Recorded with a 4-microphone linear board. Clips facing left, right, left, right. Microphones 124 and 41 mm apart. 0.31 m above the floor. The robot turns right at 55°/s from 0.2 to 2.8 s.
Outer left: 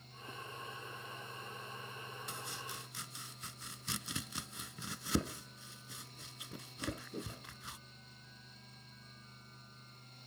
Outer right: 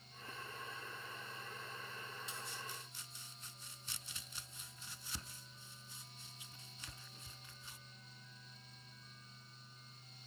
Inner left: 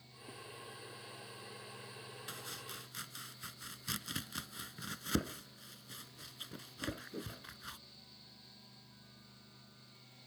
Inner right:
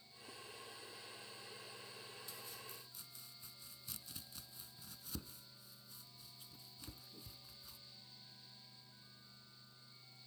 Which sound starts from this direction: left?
Chopping, at 2.3 s.